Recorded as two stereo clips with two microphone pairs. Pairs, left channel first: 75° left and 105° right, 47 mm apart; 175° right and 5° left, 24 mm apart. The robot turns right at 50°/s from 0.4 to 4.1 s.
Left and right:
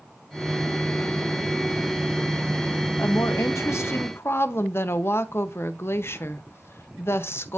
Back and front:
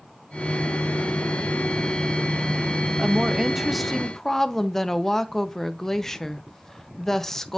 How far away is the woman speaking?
About 0.7 m.